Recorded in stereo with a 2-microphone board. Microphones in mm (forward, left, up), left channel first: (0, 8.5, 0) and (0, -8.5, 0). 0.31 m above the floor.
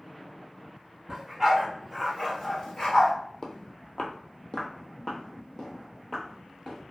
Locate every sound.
1.1 s a dog barking: 35° right (ahead or behind), 1.2 m; by 3.1 s 30° left (ahead or behind), 1.1 m
3.4 s footsteps: 45° left (ahead or behind), 0.5 m; by 6.8 s 15° left (ahead or behind), 1.5 m